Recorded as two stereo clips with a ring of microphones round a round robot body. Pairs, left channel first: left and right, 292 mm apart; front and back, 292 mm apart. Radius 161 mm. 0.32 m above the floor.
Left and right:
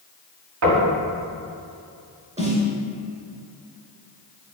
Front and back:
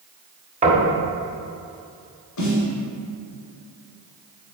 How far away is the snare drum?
About 2.5 m.